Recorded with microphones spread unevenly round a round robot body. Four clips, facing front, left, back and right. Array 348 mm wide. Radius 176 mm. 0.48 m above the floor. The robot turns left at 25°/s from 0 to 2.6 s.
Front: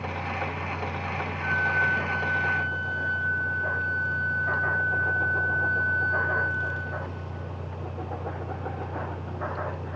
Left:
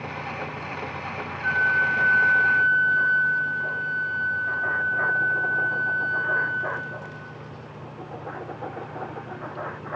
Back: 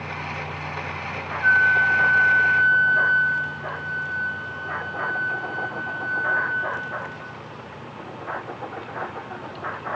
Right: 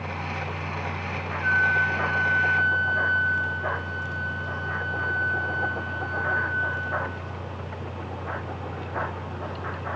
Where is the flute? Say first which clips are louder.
Even, back 8 dB; 30° right, 2.5 m; by 7.2 s 60° right, 2.5 m.